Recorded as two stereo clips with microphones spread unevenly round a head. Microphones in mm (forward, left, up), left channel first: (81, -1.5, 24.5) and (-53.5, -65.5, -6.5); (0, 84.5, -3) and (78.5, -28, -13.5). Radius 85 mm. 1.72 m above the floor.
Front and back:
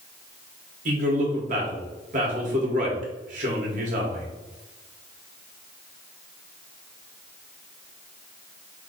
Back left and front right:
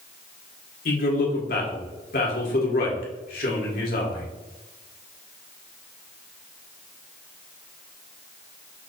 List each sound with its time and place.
0.8 s a man speaking: 155° left, 1.5 m